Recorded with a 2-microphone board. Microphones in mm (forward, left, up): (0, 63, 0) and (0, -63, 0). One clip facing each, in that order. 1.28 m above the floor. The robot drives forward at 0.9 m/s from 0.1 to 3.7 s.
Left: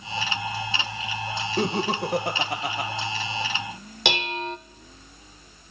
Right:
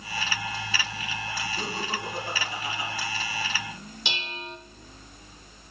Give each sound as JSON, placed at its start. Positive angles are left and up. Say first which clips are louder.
{"t": 1.6, "sound": "laughter", "louder": "left 12 dB", "side_deg": 60, "distance_m": 1.4}
{"t": 4.0, "sound": "dishes clattering", "louder": "left 11 dB", "side_deg": 70, "distance_m": 0.7}